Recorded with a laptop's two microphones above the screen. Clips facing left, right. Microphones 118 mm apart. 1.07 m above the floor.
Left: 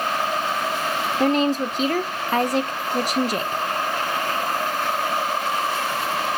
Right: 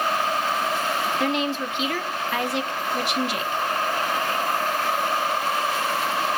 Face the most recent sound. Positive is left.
turn(degrees=40)  # may be behind; listen again after turning